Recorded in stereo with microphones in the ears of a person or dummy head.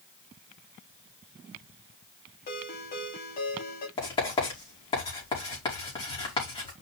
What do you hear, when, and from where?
2.5 s a ringtone: 40° left (ahead or behind), 2.5 m
4.0 s writing: 25° left (ahead or behind), 4.5 m